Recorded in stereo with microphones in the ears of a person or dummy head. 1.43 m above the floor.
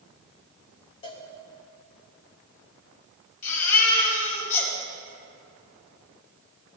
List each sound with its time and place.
1.0 s a cowbell: 30° left (ahead or behind), 1.0 m
3.4 s a baby crying: 55° left (ahead or behind), 3 m